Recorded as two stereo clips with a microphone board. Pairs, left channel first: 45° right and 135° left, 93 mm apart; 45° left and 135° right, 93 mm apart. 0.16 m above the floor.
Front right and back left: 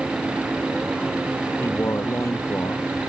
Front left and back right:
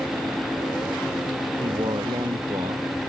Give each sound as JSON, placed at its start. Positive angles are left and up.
{"t": 1.6, "sound": "a man speaking", "azimuth_deg": -105}